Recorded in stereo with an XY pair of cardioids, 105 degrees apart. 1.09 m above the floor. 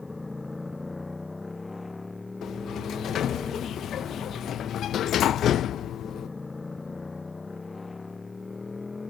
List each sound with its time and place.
0.0 s a motorcycle: 15° left; by 9.1 s 20° left
2.4 s a sliding door: 65° left